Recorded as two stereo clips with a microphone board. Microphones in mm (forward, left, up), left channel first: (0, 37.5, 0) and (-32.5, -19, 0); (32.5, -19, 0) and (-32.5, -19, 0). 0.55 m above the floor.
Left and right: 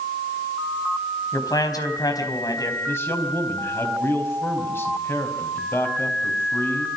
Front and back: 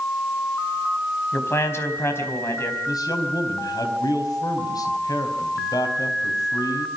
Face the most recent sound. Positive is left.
turn(degrees=5)